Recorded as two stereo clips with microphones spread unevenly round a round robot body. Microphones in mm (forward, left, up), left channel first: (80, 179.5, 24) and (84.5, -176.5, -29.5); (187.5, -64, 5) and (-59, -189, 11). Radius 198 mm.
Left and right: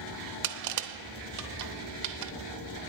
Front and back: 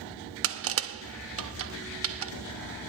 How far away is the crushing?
About 0.7 m.